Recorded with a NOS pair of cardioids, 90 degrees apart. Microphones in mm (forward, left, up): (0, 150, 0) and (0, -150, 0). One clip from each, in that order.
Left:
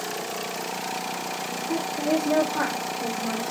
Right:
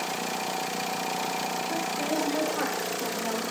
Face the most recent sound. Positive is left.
turn(degrees=30)